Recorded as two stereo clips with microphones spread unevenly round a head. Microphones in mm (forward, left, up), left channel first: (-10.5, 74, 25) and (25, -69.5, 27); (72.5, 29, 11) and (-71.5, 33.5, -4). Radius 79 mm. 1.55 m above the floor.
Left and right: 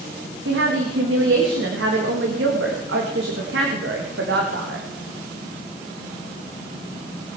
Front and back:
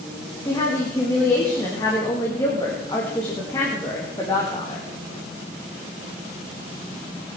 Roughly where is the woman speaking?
Right.